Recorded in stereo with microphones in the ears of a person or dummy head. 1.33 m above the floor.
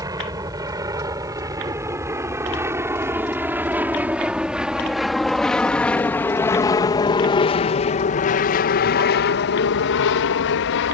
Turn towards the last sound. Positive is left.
turn(degrees=60)  # may be behind; listen again after turning